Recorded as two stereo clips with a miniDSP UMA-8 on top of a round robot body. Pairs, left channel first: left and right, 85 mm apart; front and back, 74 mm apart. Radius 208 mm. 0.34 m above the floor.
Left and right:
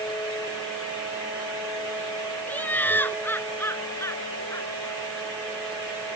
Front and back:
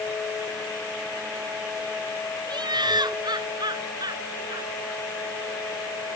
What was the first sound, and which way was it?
Laughter, 160° left.